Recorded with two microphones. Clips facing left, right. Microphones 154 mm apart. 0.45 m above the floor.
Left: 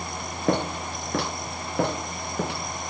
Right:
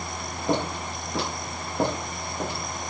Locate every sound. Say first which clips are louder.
0.5 s footsteps: left 2 dB; 55° left (ahead or behind), 3.5 m; by 2.6 s 65° left (ahead or behind), 4.5 m